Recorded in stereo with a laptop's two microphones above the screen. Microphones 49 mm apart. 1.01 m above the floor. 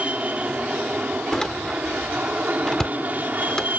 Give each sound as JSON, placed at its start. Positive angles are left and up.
{"t": 0.0, "sound": "an aircraft", "side_deg": -30}
{"t": 1.3, "sound": "a door slam", "side_deg": 15}